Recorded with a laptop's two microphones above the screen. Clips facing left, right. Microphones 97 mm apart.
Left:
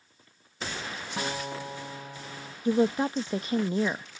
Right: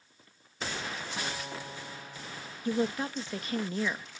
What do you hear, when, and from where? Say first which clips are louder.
1.2 s a guitar: left 9 dB; 30° left (ahead or behind)
2.6 s a woman speaking: left 6 dB; 25° left (ahead or behind)